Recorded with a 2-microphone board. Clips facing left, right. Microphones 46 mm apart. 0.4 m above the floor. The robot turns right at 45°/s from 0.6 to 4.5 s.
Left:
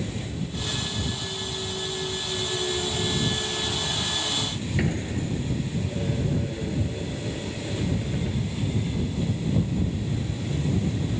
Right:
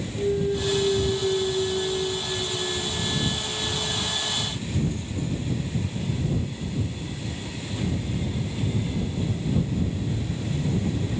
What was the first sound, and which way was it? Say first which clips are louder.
A clunk: right 9 dB; 80° right.